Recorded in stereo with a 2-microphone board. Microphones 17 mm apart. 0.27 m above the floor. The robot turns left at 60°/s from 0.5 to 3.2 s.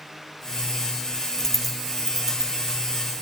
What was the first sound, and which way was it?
A dropped coin, 25° left (ahead or behind).